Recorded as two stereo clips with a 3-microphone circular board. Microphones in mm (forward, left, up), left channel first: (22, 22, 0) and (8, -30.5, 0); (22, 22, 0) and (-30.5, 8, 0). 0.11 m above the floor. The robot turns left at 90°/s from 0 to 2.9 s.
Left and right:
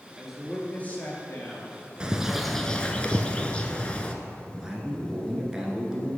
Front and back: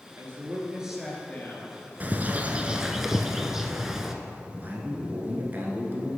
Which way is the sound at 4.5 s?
170° right.